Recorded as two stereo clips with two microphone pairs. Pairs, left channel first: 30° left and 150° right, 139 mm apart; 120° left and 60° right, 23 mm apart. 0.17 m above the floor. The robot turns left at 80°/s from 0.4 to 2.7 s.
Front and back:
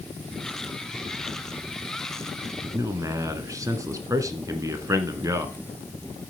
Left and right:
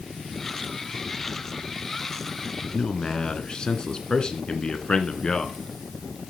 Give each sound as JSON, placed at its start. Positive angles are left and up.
{"t": 2.6, "sound": "a man speaking", "azimuth_deg": 160, "distance_m": 1.7}